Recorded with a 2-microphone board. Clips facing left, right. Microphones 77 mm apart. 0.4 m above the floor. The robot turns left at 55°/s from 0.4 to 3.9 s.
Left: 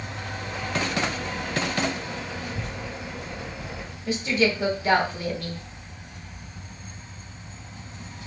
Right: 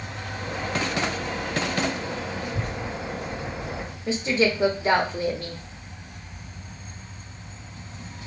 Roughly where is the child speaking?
Ahead right.